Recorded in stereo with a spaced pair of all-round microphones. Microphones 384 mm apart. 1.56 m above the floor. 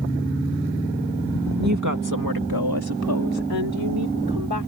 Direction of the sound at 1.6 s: 45° right (ahead or behind).